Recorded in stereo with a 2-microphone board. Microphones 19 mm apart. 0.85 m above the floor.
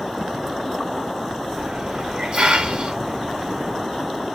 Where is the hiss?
65° right (ahead or behind), 1.8 m.